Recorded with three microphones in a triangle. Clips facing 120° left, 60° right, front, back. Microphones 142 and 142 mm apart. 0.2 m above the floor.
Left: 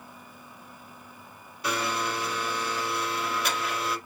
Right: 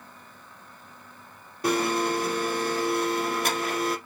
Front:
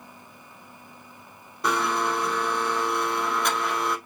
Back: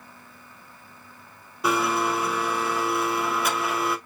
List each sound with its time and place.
1.6 s a blender: 95° right, 0.5 m